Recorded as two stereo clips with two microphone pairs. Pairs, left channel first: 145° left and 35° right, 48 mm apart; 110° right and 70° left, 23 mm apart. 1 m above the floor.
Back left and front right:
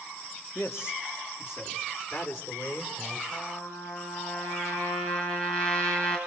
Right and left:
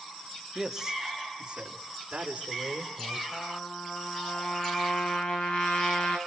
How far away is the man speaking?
About 1.9 m.